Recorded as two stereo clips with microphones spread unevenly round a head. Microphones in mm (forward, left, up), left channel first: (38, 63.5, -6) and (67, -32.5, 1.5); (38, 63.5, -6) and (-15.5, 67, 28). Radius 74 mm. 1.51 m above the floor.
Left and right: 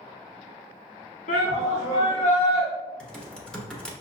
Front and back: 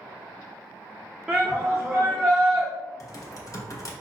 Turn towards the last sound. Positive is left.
turn(degrees=25)